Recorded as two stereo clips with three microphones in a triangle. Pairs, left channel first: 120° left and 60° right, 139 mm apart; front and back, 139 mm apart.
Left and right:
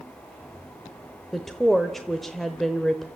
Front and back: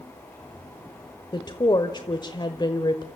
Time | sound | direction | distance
1.3 | a woman speaking | 30° left | 1.0 m